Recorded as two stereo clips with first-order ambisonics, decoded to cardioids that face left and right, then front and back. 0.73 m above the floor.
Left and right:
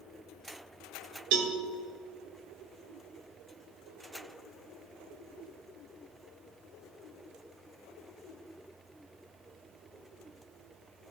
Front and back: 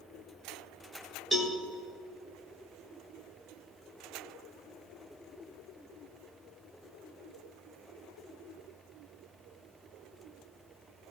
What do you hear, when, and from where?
1.3 s a cowbell: 100° right, 1.5 m